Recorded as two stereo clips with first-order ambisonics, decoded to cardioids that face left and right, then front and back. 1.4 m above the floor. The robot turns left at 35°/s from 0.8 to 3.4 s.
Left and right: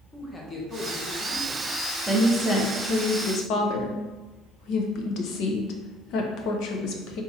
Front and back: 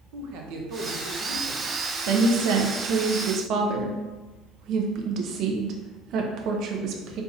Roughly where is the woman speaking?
Behind.